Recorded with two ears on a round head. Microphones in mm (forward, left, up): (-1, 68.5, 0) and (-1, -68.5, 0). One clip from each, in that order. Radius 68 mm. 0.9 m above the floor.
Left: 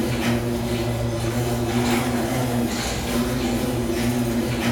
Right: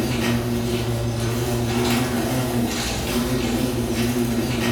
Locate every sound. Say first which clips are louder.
0.0 s an insect: even; 40° right (ahead or behind), 1.3 m